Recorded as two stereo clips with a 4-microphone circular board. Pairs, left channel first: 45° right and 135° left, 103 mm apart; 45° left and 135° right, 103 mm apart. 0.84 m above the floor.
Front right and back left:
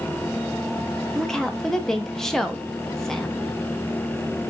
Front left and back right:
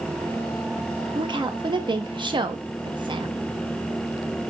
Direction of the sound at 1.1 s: 130° right.